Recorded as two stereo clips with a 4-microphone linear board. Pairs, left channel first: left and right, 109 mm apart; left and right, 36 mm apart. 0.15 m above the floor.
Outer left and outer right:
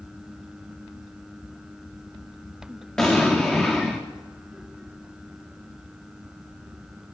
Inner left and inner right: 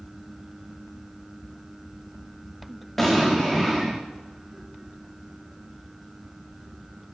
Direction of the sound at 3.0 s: 10° left (ahead or behind).